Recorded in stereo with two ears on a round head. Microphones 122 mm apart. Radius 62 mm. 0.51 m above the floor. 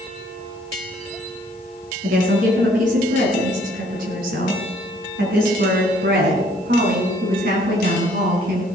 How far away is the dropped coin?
I don't hear a dropped coin.